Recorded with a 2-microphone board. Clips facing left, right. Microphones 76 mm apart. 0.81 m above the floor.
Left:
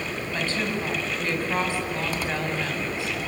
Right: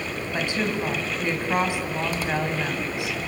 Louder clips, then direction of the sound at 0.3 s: Right 2 dB; 20° right (ahead or behind).